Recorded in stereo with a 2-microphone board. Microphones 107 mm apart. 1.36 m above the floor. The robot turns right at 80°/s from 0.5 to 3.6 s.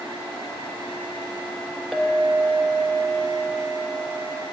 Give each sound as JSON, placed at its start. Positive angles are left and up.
{"t": 1.9, "sound": "a clink", "azimuth_deg": -175, "distance_m": 0.7}